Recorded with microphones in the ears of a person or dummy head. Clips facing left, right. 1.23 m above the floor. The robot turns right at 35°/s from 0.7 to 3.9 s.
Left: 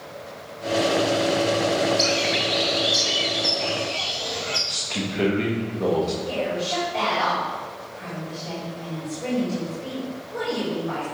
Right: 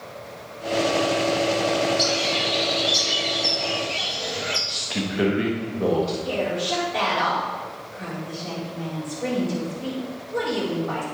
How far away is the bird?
About 0.8 m.